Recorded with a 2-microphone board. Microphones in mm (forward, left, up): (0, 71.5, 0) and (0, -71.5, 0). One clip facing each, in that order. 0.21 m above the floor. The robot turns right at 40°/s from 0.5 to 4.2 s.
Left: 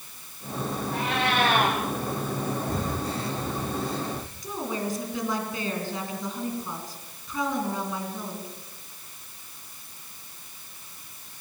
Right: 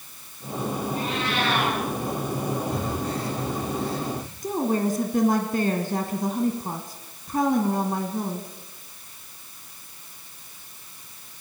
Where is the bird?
I don't hear a bird.